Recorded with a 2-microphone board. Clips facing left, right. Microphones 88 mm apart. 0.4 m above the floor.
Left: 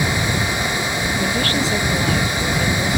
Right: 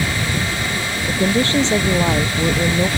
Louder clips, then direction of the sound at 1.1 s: Right 6 dB; 25° right (ahead or behind).